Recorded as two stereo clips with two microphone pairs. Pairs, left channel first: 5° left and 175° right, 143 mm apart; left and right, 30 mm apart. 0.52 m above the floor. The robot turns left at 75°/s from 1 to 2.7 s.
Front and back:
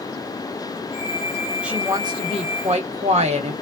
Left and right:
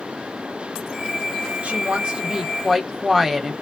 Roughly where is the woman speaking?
Right.